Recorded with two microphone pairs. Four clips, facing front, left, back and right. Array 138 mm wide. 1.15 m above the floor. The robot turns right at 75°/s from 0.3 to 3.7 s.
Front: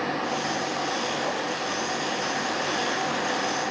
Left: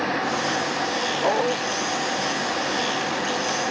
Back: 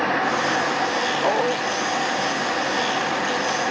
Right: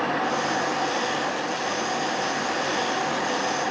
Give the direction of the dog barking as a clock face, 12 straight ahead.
8 o'clock.